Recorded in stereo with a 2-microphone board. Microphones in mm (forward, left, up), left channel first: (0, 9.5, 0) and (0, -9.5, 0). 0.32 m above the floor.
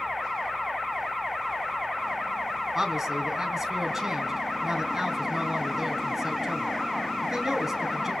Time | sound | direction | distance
2.8 | a man speaking | 15° right (ahead or behind) | 3.5 m